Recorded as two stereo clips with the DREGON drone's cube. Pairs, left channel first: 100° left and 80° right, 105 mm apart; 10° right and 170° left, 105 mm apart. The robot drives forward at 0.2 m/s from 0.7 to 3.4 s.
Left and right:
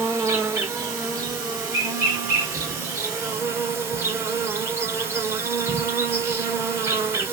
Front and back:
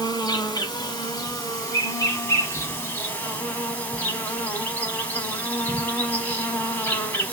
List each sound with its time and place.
0.0 s an insect: 35° right, 1.3 m; by 7.3 s 65° right, 1.1 m